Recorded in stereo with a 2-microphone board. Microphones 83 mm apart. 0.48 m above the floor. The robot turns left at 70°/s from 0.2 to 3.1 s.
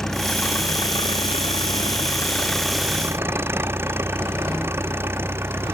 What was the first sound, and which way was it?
An engine running, 175° left.